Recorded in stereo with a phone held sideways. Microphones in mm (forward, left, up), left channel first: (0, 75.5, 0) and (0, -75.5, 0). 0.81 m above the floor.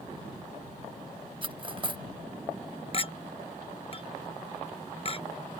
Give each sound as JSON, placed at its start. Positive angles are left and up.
{"t": 1.4, "sound": "cutlery clinking", "side_deg": -35}
{"t": 2.9, "sound": "a clink", "side_deg": 40}